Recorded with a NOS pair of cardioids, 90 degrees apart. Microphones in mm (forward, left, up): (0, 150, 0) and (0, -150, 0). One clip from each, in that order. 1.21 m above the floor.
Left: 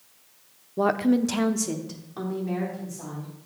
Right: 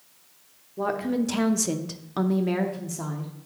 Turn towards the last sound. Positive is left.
turn(degrees=-65)